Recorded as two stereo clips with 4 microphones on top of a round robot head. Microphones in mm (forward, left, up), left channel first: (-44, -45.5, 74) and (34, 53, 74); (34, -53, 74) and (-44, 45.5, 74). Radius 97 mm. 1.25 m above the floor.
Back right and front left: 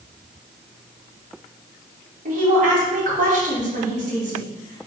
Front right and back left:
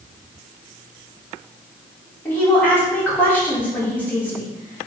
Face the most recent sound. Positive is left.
turn(degrees=25)